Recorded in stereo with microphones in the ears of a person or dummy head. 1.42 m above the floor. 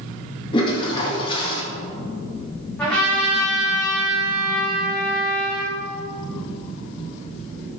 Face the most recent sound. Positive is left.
turn(degrees=5)  # may be behind; listen again after turning